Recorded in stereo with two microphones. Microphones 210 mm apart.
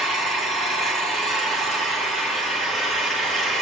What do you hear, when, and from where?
0.0 s an engine running: centre (ahead or behind), 5 m